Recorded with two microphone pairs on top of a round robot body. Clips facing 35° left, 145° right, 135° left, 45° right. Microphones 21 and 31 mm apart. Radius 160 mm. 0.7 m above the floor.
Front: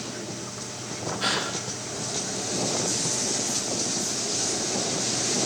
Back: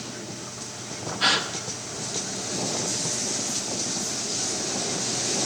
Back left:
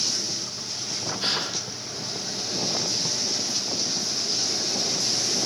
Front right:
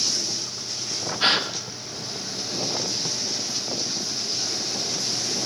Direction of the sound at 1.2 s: 85° right.